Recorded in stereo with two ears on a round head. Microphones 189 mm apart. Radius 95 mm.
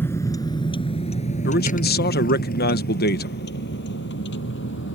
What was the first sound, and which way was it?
A vehicle, 10° left (ahead or behind).